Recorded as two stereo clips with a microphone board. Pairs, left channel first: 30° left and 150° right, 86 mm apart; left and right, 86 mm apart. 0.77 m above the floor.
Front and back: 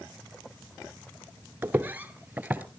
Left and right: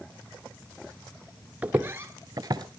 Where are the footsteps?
140° right, 0.7 m; by 2.6 s 80° right, 1.0 m.